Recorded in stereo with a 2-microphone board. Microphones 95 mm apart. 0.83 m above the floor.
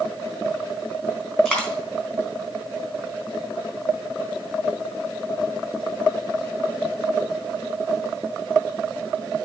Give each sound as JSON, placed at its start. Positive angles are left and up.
{"t": 1.4, "sound": "a dropped coin", "side_deg": 10, "distance_m": 3.5}